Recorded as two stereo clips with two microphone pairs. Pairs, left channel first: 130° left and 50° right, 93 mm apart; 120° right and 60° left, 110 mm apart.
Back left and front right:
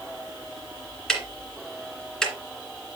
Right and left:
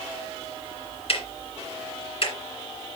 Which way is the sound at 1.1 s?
145° right.